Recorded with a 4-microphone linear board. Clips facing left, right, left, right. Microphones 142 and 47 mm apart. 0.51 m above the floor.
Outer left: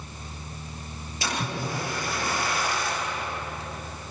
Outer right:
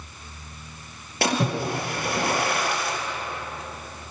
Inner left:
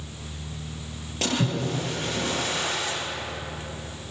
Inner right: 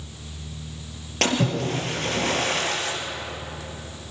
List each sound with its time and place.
1.2 s a splash: 65° right (ahead or behind), 4 m